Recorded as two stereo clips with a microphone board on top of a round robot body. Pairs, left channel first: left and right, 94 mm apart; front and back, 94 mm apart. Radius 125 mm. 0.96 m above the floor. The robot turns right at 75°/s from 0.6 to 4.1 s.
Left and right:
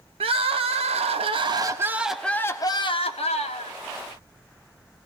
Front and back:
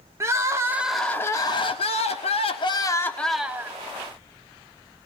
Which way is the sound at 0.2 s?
115° right.